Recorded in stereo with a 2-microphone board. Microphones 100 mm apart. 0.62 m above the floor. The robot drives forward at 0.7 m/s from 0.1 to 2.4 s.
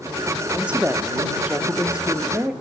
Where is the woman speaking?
10° right (ahead or behind), 0.9 m.